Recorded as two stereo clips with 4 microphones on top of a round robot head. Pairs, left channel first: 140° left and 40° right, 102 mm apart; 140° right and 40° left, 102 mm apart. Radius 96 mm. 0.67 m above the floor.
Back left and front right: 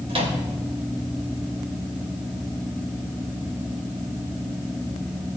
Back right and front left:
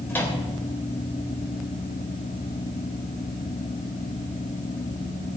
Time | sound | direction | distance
0.1 | a microwave | 70° right | 3 m